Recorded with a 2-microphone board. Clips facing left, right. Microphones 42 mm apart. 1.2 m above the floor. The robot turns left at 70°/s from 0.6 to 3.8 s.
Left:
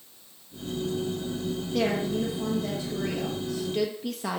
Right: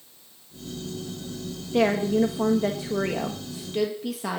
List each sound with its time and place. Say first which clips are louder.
1.7 s a woman speaking: right 6 dB; 30° right, 1.3 m; by 4.4 s 175° right, 1.3 m